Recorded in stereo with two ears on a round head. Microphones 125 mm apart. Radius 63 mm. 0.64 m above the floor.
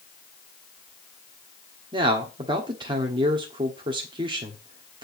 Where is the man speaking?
35° right (ahead or behind), 1.3 m.